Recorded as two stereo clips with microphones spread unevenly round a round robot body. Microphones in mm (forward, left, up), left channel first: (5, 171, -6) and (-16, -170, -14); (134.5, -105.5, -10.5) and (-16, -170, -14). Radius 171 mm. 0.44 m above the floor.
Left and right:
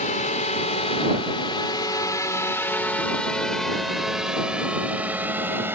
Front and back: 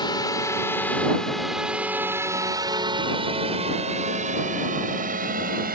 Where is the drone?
45° left; by 5.8 s 175° right.